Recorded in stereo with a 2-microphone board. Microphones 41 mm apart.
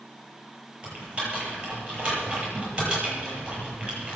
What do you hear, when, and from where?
0.8 s typing on a keyboard: 25° right (ahead or behind), 9.5 m